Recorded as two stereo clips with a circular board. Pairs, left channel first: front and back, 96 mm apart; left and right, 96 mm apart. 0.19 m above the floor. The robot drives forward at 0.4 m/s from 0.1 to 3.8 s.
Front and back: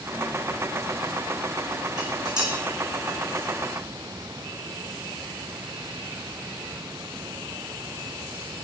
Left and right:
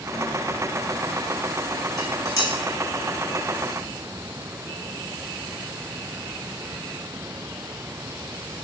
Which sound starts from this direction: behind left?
Dishes clattering, at 2.0 s.